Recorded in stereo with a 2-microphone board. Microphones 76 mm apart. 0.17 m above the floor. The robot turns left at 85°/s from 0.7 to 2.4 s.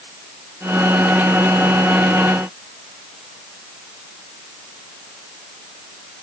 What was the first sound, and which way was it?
Only background noise.